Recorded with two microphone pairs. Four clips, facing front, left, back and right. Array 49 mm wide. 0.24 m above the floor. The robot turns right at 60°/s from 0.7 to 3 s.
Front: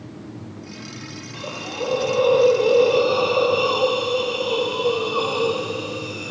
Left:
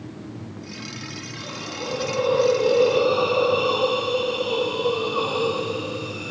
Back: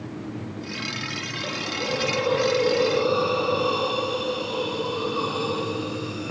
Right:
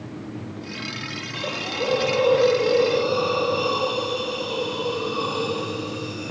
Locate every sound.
1.3 s a hiss: 80° right, 1.2 m; by 6.3 s 20° left, 1.2 m